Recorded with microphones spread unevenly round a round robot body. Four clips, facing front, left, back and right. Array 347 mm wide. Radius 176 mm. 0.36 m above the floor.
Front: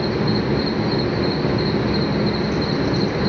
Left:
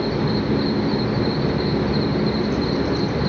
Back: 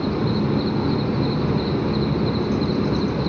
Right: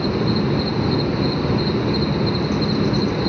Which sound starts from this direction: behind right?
An insect, at 0.0 s.